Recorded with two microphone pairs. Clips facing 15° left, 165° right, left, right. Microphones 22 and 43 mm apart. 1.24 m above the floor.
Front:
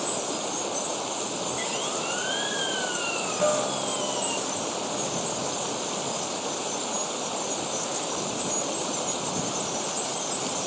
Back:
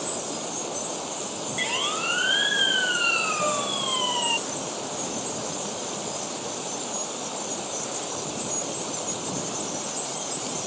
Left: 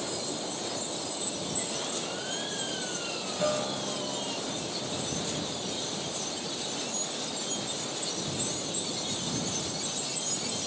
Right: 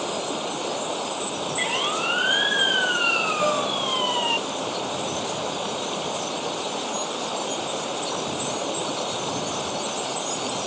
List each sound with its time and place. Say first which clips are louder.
0.0 s running water: front 2 dB, right 7 dB; 60° right
1.6 s a siren: back 8 dB, right 11 dB; 100° right; by 4.4 s 105° right
3.4 s a guitar: front 1 dB, right 7 dB; 35° right